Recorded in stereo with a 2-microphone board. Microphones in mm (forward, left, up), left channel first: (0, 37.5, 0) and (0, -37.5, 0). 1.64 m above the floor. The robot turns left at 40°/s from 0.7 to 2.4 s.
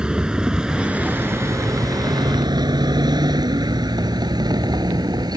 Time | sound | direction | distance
0.0 | a vehicle | 10° right (ahead or behind) | ?